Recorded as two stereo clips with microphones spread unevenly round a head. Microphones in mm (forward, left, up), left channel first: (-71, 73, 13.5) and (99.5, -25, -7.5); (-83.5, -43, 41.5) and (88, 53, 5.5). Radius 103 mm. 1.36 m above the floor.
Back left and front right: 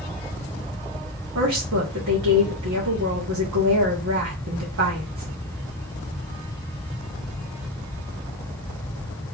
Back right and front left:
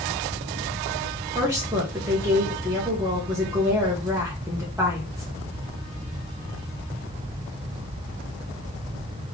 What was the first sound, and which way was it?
A woman speaking, 50° right.